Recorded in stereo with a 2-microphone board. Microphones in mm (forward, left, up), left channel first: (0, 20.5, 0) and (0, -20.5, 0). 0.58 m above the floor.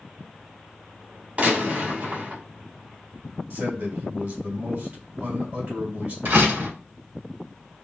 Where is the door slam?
55° right (ahead or behind), 1.7 m.